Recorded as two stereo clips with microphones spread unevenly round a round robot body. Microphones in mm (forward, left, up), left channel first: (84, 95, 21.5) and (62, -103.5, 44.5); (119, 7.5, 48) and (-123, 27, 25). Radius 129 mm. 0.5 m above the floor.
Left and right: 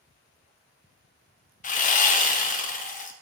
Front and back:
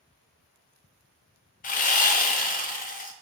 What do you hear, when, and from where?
1.6 s sawing: 50° left, 0.5 m